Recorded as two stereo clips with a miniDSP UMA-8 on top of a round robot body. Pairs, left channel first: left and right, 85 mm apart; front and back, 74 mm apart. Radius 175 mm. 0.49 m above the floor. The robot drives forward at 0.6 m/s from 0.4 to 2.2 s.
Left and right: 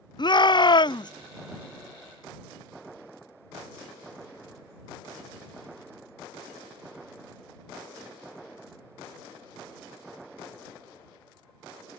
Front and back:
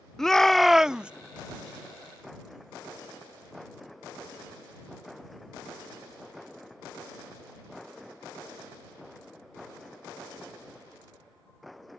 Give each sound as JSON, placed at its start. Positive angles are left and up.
{"t": 0.2, "sound": "a shout", "azimuth_deg": 85}